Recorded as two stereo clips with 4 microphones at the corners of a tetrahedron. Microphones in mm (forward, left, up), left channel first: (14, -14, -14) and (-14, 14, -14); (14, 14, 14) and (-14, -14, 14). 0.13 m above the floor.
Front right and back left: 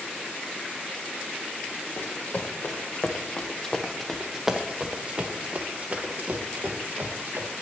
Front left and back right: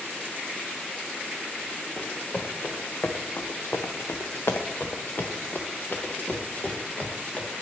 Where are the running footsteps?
15° right, 1.4 m; by 7.5 s 100° left, 2 m.